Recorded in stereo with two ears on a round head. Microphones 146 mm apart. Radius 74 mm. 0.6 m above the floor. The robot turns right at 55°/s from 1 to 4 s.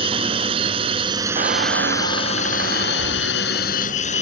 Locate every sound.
0.0 s a drone: 35° right; by 4.2 s 130° left
1.4 s a squeak: 135° right; by 3.4 s 20° right